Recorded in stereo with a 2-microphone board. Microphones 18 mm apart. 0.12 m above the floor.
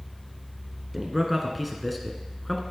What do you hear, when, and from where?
0.9 s a man speaking: 15° right (ahead or behind), 1.2 m; by 2.6 s 20° left (ahead or behind), 1.1 m